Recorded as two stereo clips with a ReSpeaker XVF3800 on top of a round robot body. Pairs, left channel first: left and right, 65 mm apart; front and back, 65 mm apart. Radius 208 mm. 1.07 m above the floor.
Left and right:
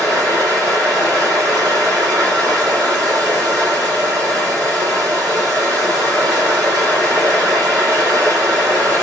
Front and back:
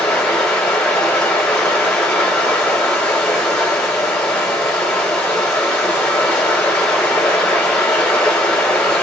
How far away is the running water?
About 2.5 m.